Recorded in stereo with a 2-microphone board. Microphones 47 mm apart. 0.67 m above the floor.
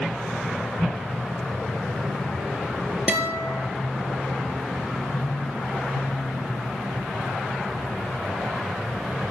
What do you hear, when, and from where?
3.1 s a guitar: 30° right (ahead or behind), 2.5 m